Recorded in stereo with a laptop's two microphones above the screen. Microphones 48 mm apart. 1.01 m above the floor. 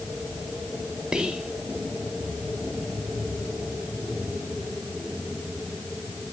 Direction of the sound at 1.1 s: 15° right (ahead or behind).